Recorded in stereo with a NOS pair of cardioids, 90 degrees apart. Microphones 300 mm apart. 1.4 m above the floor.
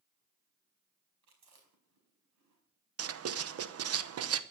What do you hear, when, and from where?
1.2 s chewing: 60° right, 5 m
3.0 s writing: 50° right, 0.9 m